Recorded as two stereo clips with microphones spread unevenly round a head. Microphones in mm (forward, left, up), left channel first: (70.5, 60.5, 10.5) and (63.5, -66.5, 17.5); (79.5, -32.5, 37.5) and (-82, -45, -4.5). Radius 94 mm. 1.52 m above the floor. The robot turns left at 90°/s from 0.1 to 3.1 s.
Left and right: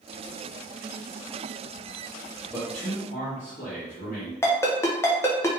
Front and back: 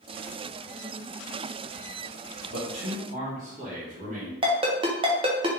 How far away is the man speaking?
About 1.1 m.